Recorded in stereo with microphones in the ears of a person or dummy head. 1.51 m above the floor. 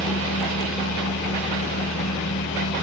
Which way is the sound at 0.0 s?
65° left (ahead or behind).